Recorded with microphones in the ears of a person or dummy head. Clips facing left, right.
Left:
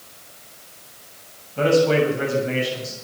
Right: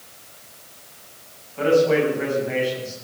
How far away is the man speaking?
About 7 m.